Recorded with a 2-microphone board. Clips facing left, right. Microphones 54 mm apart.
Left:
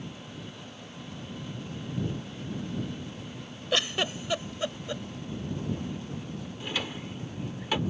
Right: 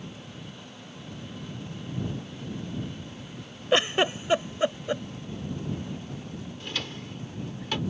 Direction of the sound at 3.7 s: 30° right (ahead or behind).